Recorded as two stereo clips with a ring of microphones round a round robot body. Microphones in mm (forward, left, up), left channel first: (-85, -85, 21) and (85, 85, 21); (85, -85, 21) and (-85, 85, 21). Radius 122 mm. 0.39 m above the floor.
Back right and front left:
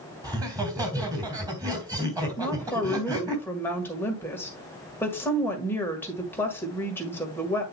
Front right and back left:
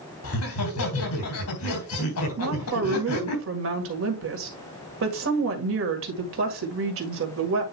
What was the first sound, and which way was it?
Laughter, 30° right.